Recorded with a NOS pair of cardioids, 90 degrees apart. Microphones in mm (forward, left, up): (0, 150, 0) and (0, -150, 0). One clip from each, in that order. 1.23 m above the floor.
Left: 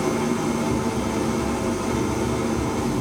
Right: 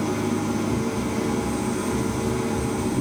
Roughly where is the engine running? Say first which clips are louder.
Left 2 dB; ahead left.